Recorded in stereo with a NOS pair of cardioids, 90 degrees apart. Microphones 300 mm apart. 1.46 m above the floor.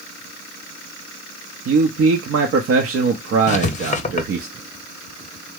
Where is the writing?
25° left, 0.7 m.